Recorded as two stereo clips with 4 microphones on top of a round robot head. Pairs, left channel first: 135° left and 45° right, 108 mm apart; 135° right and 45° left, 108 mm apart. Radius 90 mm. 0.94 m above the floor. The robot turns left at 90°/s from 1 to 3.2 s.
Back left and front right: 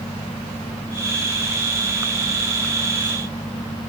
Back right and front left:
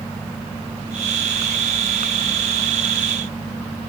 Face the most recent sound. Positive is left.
No sound to turn to.